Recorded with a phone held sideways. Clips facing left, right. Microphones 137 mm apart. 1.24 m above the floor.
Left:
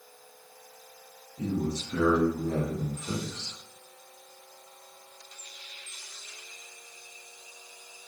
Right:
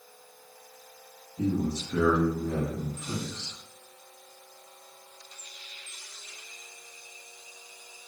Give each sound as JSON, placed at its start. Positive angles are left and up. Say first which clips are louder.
{"t": 1.4, "sound": "a man speaking", "louder": "right 2 dB", "side_deg": -35, "distance_m": 0.9}